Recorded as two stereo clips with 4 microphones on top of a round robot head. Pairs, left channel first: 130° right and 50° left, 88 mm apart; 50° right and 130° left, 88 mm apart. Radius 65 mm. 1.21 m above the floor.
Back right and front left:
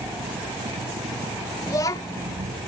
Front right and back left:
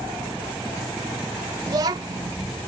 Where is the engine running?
40° left.